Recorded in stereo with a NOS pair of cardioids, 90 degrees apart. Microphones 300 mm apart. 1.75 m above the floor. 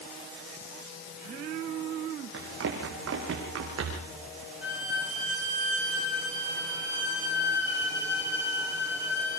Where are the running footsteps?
50° right, 6 m; by 4.1 s 55° right, 7 m.